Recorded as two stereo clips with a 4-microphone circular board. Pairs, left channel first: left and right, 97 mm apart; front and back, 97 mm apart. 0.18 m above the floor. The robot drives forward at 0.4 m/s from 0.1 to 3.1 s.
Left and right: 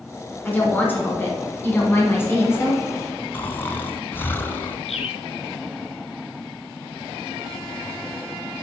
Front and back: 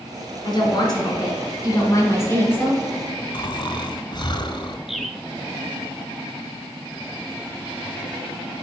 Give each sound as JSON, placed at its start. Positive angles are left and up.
{"t": 0.5, "sound": "a woman speaking", "azimuth_deg": 25, "distance_m": 1.9}
{"t": 3.3, "sound": "snoring", "azimuth_deg": 30, "distance_m": 0.6}
{"t": 4.9, "sound": "a bird", "azimuth_deg": 95, "distance_m": 0.8}